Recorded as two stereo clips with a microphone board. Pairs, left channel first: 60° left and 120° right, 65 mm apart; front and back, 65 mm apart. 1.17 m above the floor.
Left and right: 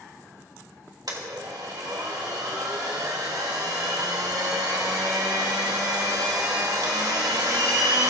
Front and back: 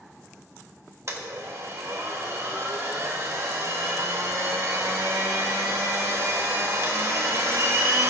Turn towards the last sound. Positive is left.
turn(degrees=-140)